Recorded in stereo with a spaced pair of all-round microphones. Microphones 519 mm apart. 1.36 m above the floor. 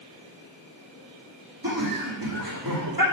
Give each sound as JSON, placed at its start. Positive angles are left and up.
{"t": 1.6, "sound": "laughter", "side_deg": -45, "distance_m": 3.0}